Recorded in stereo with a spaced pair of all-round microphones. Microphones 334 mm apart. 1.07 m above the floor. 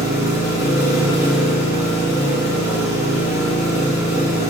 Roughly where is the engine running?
Centre.